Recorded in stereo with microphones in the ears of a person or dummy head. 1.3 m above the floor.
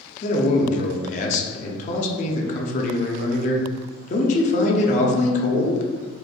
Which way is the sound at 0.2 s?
40° left (ahead or behind).